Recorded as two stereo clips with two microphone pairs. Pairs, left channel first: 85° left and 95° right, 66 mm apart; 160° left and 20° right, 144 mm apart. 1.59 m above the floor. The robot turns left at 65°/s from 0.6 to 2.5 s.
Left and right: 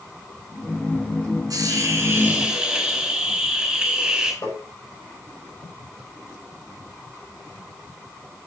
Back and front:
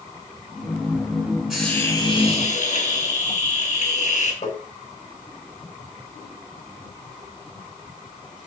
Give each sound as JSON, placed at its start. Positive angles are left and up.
{"t": 1.5, "sound": "a hiss", "azimuth_deg": -110, "distance_m": 4.5}
{"t": 4.4, "sound": "tapping", "azimuth_deg": 125, "distance_m": 6.0}